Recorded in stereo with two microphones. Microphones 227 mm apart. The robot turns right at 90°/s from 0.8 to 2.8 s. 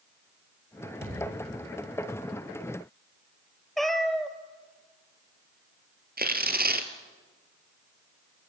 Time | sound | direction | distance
1.0 | a thud | 55° right | 5 m
3.8 | a cat meowing | centre (ahead or behind) | 1.0 m
6.2 | tearing paper | 45° right (ahead or behind) | 1.6 m